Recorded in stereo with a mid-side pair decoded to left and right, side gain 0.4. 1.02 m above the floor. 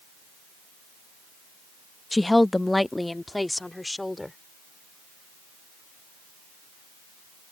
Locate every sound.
2.1 s a woman speaking: 15° left